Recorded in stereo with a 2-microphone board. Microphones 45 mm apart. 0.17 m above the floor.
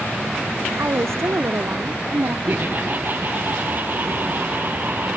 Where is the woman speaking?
70° right (ahead or behind); by 2.4 s 65° right (ahead or behind).